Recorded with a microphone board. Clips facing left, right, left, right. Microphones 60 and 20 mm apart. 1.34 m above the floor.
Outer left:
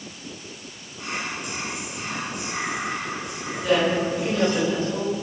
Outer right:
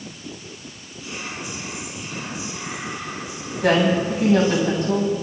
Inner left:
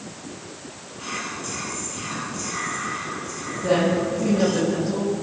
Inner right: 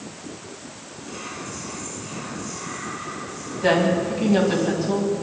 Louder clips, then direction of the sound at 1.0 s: Outer left 2 dB, inner left 4 dB; 65° left (ahead or behind).